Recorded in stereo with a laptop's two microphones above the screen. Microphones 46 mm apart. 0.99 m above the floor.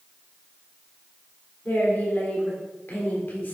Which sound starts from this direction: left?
A woman speaking, at 1.6 s.